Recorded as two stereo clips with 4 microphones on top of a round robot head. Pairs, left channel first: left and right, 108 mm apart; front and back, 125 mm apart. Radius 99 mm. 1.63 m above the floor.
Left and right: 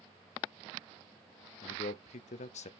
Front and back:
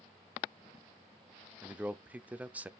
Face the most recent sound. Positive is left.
turn(degrees=105)